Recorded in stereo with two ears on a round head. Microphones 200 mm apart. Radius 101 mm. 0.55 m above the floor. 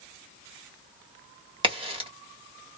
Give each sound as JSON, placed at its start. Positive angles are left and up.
{"t": 1.6, "sound": "a crack", "side_deg": -25, "distance_m": 1.5}